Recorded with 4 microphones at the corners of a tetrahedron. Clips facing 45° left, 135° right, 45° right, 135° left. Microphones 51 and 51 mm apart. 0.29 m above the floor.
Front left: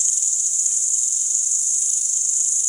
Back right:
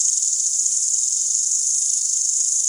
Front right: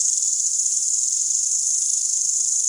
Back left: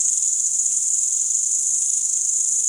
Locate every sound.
0.0 s an insect: 90° left, 0.8 m